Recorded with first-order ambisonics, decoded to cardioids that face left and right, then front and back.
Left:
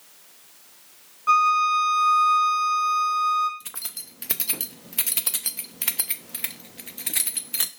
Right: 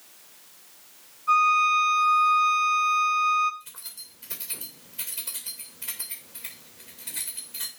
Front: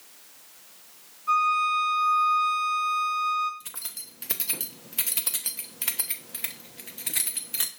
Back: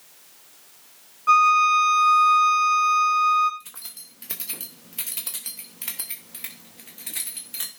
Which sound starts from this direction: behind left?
A violin, at 1.3 s.